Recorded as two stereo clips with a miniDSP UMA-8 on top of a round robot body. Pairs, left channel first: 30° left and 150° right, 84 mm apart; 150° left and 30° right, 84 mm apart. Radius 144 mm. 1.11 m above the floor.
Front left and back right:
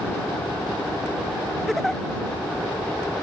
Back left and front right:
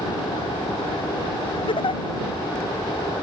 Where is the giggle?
120° left.